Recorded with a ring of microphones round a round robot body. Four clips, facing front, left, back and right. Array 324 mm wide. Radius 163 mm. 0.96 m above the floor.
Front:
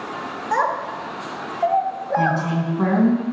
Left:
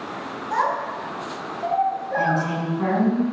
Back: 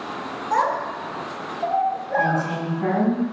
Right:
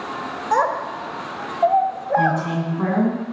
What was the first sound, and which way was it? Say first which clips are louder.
A child speaking: right 3 dB, even; 80° right.